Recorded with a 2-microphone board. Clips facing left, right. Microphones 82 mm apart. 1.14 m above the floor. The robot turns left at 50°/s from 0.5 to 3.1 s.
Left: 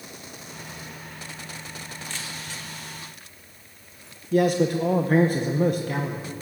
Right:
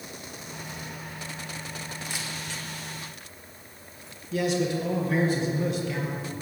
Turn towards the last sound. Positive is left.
turn(degrees=50)  # may be behind; listen again after turning